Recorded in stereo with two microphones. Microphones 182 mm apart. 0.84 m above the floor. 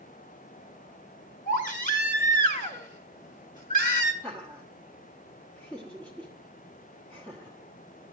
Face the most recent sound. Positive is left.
turn(degrees=5)  # may be behind; listen again after turning